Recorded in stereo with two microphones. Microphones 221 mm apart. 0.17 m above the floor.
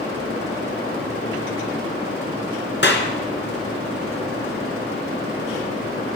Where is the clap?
55° left (ahead or behind), 1.8 m.